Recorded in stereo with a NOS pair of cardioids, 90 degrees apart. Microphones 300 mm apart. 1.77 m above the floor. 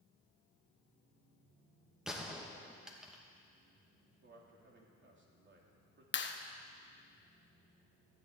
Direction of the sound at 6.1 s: 40° left.